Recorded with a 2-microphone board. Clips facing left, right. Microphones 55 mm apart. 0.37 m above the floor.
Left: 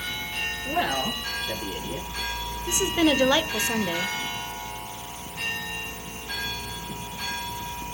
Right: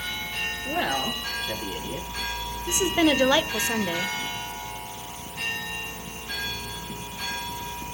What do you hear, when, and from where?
0.7 s a man speaking: 10° right (ahead or behind), 7 m; by 2.1 s 15° right (ahead or behind), 6.5 m
2.7 s a woman speaking: 20° right (ahead or behind), 1.1 m